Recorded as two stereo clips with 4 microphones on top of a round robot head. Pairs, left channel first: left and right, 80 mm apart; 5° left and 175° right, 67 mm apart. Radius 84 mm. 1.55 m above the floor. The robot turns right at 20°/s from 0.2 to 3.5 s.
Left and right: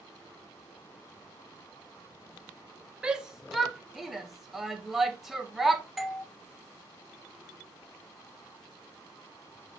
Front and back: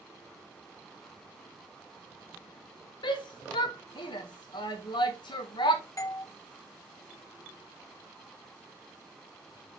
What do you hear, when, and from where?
3.0 s a shout: 10° right, 1.4 m; by 5.8 s straight ahead, 1.4 m
6.0 s a doorbell: 5° right, 0.8 m